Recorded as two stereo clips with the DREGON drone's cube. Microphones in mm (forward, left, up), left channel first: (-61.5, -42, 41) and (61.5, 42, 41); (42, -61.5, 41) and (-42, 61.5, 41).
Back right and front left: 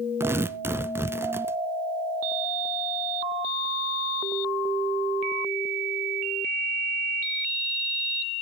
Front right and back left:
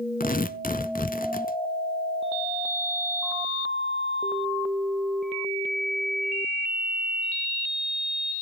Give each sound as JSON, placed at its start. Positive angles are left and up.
{"t": 0.2, "sound": "tearing paper", "azimuth_deg": -40, "distance_m": 0.6}